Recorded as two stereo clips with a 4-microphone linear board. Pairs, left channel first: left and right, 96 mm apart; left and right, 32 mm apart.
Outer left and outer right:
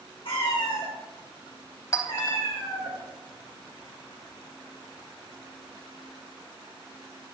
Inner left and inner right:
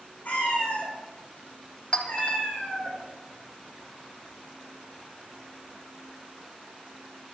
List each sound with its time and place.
0.2 s a cat meowing: 65° left (ahead or behind), 4 m
1.9 s a clink: 35° left (ahead or behind), 1.2 m